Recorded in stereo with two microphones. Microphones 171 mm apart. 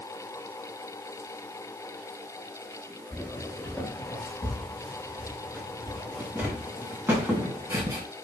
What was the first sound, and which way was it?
Footsteps, 10° left (ahead or behind).